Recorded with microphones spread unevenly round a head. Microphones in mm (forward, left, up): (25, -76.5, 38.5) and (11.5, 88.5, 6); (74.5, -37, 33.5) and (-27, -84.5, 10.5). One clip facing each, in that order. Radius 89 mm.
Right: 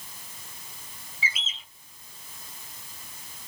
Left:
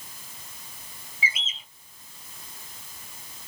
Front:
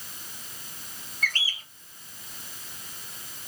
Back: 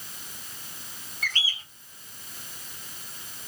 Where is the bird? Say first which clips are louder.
Left 2 dB, front 1 dB; 10° left, 2 m.